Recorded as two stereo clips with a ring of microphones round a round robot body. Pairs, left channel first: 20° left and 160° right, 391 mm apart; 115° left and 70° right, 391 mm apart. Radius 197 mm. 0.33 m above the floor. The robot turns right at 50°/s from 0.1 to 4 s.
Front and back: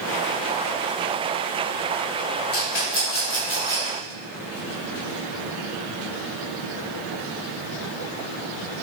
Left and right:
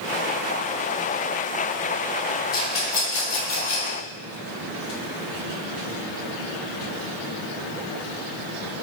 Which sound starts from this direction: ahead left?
A rattle, at 2.5 s.